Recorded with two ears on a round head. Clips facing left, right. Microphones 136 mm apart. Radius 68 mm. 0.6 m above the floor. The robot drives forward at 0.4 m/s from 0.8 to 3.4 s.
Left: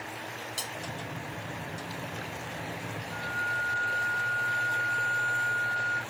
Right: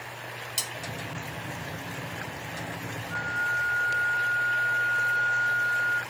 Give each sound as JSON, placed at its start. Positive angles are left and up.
{"t": 0.6, "sound": "cutlery clinking", "side_deg": -20, "distance_m": 0.5}
{"t": 3.1, "sound": "a flute", "side_deg": 25, "distance_m": 1.3}